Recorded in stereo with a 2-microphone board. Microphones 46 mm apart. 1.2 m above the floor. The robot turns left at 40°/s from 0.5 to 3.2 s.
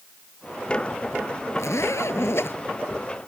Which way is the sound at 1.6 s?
95° left.